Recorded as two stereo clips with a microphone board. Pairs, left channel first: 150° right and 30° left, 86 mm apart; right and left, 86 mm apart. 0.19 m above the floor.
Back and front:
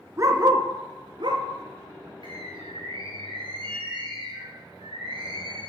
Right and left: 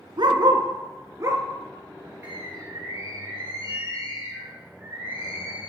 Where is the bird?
30° left, 3.5 m.